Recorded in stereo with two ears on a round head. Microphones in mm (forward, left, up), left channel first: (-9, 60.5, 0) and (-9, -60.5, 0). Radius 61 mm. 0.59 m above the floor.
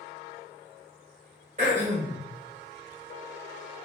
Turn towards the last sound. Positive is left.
turn(degrees=-50)  # may be behind; listen again after turning